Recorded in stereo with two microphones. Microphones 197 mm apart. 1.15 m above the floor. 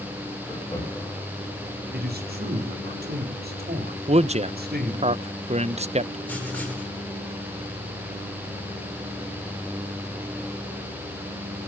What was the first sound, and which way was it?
Laughter, 15° left (ahead or behind).